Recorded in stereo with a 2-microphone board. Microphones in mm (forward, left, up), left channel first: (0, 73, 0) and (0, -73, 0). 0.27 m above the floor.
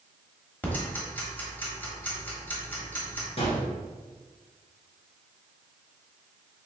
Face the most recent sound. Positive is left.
turn(degrees=45)  # may be behind; listen again after turning